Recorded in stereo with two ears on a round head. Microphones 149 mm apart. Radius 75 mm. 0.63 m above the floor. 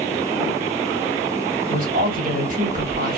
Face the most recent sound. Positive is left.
turn(degrees=-55)  # may be behind; listen again after turning